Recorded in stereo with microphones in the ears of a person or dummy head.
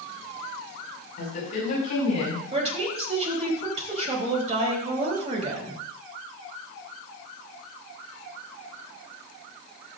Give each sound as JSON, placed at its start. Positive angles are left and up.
{"t": 1.2, "sound": "a woman speaking", "side_deg": 50, "distance_m": 5.5}
{"t": 2.5, "sound": "a woman speaking", "side_deg": -40, "distance_m": 3.5}